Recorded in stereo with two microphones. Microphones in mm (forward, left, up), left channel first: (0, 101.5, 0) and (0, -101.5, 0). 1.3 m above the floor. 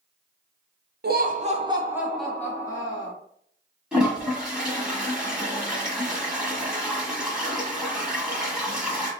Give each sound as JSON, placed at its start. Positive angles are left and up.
{"t": 1.0, "sound": "laughter", "side_deg": -55, "distance_m": 0.8}
{"t": 3.9, "sound": "a toilet flushing", "side_deg": -5, "distance_m": 1.4}